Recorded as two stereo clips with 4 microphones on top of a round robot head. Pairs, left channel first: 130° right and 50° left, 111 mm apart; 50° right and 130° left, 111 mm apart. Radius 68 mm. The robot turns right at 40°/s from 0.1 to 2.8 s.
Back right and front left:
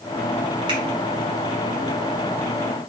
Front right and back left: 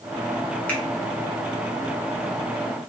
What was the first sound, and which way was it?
A finger snap, 25° left.